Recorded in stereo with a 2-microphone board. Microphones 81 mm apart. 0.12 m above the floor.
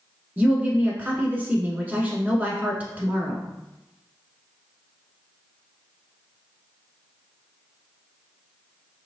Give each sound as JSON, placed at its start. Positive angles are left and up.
{"t": 0.4, "sound": "a woman speaking", "side_deg": -20, "distance_m": 1.1}